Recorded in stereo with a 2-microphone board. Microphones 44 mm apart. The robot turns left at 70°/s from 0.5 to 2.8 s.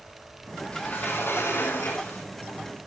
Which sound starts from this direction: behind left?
A sliding door, at 0.7 s.